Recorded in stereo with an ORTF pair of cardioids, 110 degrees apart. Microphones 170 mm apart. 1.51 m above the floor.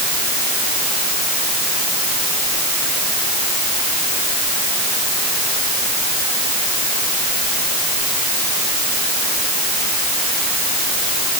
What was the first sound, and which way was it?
Only background noise.